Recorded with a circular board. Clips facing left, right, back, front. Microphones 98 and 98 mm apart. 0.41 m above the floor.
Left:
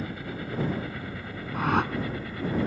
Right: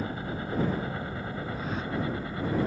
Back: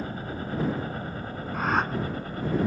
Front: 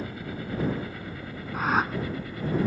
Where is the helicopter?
140° right; by 2.7 s 145° right.